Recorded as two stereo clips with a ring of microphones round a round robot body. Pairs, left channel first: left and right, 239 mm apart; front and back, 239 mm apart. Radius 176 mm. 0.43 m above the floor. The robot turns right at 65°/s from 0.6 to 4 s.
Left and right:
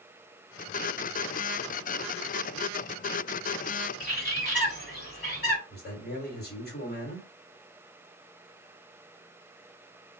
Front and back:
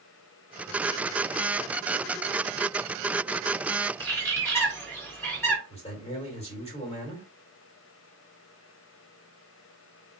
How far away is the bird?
About 1.7 m.